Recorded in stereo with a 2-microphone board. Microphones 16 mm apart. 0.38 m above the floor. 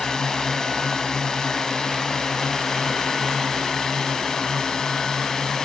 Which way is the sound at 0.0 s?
40° left (ahead or behind).